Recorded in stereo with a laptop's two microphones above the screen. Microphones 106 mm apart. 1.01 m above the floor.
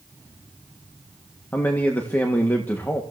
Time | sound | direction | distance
1.5 | a man speaking | 15° left (ahead or behind) | 1.7 m